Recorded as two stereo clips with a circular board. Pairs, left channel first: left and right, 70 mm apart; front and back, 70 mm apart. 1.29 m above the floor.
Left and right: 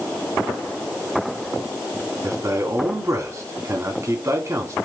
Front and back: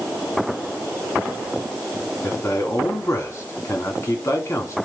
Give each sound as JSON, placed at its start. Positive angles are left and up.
{"t": 2.2, "sound": "a man speaking", "azimuth_deg": -50, "distance_m": 3.5}